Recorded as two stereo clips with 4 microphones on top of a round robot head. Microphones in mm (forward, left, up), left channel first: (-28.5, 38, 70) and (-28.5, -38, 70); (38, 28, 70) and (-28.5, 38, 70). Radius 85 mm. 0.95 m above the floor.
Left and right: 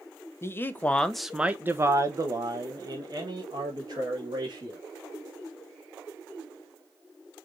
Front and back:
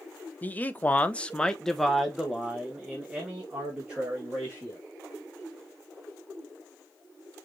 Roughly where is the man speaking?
Ahead left.